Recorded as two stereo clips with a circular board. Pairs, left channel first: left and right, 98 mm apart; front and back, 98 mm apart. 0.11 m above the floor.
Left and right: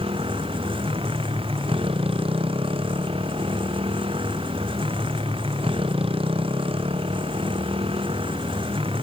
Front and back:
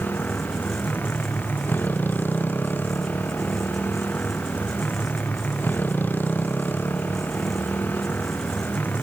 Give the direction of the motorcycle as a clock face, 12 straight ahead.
2 o'clock.